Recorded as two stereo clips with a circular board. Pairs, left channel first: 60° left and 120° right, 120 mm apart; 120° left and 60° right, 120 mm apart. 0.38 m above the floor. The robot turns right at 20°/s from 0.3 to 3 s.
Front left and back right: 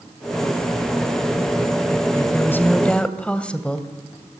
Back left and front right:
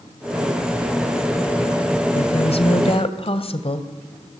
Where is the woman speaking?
120° left, 2 m; by 3.9 s 140° left, 2 m.